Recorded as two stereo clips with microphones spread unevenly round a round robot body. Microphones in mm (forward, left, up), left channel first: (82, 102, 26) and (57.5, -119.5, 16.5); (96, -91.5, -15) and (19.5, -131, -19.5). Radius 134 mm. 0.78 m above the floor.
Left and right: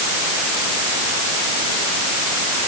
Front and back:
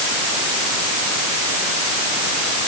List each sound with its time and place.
Only background noise.